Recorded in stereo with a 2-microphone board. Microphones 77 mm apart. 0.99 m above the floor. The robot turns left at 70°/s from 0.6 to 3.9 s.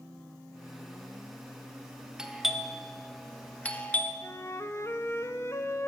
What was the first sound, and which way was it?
A doorbell, 10° right (ahead or behind).